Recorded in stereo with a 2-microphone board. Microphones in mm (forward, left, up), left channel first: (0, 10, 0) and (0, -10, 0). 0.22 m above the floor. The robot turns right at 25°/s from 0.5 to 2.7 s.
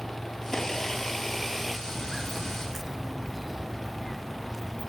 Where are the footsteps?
5° right (ahead or behind); by 4.9 s centre (ahead or behind).